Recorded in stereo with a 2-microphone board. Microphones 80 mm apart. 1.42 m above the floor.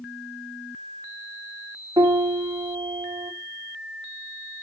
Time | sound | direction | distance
2.0 | a piano | 65° right (ahead or behind) | 1.5 m